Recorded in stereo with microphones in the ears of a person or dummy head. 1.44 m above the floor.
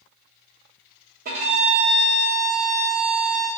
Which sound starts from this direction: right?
A violin, at 1.2 s.